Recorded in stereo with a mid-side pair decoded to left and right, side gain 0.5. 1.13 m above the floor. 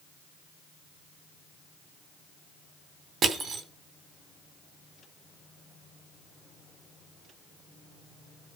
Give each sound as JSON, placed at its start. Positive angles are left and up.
{"t": 3.2, "sound": "crushing", "azimuth_deg": -40, "distance_m": 3.0}